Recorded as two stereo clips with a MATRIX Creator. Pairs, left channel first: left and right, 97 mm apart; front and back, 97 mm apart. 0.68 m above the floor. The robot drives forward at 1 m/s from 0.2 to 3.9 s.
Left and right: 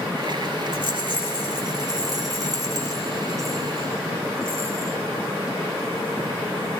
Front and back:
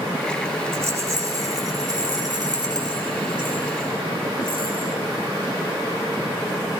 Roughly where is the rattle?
Behind right.